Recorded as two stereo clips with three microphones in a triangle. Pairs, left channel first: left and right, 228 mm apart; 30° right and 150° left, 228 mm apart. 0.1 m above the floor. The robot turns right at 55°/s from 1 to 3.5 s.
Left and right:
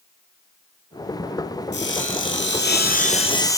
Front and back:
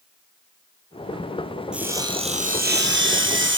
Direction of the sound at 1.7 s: 65° left.